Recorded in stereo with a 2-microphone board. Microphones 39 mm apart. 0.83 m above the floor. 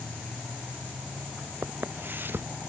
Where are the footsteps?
60° right (ahead or behind).